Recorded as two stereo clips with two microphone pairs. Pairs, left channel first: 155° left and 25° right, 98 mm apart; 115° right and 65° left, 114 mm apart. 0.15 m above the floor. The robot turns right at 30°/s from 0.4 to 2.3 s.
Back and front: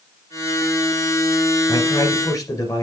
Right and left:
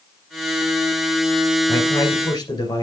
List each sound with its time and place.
1.7 s a man speaking: straight behind, 2.5 m; by 2.8 s 160° right, 2.5 m